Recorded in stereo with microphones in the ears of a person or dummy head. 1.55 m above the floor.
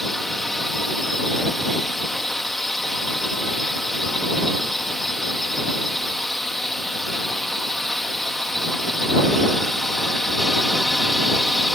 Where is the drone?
Centre (ahead or behind).